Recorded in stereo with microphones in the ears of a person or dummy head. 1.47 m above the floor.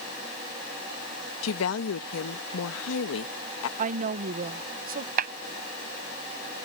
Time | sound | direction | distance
1.4 | a woman speaking | 80° left | ?
3.8 | a woman speaking | 45° right (ahead or behind) | ?
5.2 | a clap | 50° right (ahead or behind) | ?